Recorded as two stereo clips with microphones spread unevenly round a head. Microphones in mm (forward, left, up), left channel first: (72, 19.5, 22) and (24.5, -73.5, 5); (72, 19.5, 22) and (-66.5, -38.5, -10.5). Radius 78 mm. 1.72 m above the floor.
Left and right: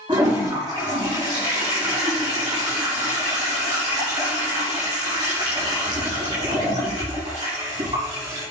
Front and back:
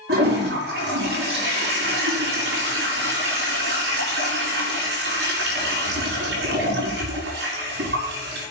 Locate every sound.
0.1 s a toilet flushing: straight behind, 6 m